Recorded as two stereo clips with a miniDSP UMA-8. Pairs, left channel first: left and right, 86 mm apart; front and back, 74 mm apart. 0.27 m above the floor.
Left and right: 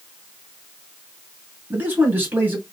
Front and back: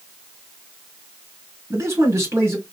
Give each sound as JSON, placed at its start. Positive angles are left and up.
{"t": 1.7, "sound": "a man speaking", "azimuth_deg": -150, "distance_m": 2.0}